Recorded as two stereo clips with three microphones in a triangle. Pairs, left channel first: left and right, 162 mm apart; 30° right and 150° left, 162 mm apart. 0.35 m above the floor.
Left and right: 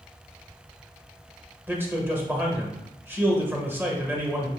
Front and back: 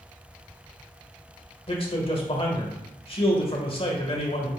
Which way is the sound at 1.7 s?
20° right.